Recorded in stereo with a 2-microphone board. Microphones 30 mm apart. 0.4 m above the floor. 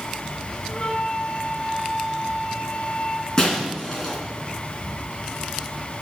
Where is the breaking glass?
25° left (ahead or behind), 2.5 m.